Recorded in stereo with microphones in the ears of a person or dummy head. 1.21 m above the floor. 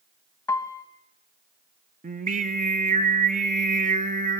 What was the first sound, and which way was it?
A piano, 20° left (ahead or behind).